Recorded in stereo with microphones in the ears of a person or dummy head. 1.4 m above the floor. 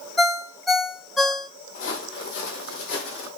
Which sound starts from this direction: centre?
A ringtone, at 0.2 s.